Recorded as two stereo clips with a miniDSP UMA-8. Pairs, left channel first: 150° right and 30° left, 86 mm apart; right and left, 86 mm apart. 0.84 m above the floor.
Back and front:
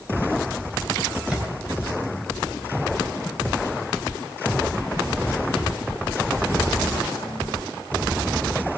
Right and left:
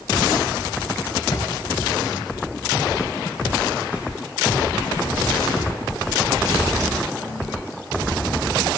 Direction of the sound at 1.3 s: 50° right.